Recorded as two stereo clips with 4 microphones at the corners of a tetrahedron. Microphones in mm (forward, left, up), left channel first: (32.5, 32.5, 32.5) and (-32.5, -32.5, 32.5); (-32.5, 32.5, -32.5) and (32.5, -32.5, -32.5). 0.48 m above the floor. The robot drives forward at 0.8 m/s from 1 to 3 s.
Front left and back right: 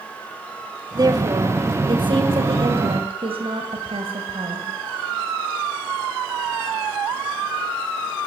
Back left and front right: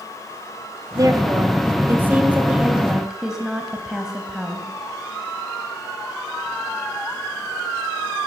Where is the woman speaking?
90° right, 2.5 m; by 4.7 s 130° right, 3 m.